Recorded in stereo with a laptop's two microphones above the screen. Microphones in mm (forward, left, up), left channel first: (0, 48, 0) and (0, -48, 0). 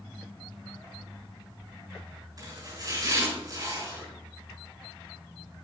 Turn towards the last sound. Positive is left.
turn(degrees=-40)  # may be behind; listen again after turning